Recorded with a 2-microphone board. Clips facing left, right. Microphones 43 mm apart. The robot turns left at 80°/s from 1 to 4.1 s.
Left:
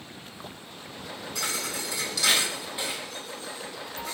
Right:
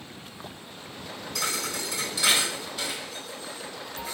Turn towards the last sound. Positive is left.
turn(degrees=55)  # may be behind; listen again after turning